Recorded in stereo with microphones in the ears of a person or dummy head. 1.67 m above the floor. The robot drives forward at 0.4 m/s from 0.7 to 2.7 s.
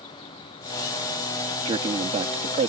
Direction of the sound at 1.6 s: 30° right (ahead or behind).